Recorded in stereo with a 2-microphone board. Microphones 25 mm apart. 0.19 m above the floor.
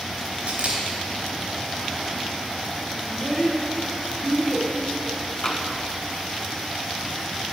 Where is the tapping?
25° left (ahead or behind), 1.2 m.